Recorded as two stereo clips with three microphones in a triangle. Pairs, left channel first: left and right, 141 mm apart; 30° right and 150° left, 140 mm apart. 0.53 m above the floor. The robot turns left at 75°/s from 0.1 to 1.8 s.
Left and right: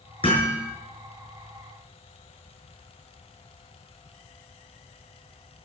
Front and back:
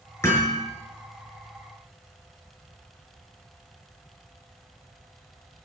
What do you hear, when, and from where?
0.2 s hammering: 40° left, 5.5 m; by 0.7 s 10° left, 5.5 m